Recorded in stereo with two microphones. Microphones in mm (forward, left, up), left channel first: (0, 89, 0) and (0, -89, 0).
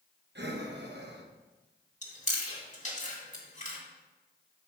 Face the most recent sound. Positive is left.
turn(degrees=40)  # may be behind; listen again after turning